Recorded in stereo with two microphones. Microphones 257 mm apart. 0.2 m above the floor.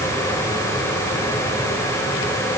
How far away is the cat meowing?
I don't hear a cat meowing.